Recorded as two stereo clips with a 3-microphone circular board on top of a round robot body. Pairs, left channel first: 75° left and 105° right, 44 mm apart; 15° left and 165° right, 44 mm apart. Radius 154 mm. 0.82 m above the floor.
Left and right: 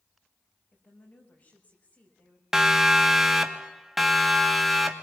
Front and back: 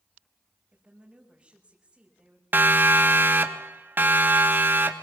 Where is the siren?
Straight behind, 2 m; by 4.9 s 165° left, 3 m.